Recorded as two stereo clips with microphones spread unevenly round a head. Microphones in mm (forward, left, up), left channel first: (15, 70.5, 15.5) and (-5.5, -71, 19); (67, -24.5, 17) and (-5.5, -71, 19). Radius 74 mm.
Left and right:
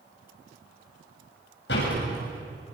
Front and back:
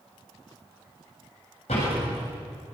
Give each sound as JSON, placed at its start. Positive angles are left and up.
{"t": 1.7, "sound": "a door slam", "azimuth_deg": 75, "distance_m": 7.0}